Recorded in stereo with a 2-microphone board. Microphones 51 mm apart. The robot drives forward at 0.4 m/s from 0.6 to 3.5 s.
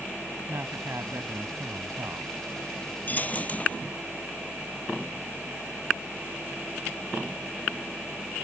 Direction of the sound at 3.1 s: 35° left (ahead or behind).